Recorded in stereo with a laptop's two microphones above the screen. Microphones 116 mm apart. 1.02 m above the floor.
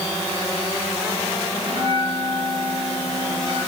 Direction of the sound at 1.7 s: 60° right (ahead or behind).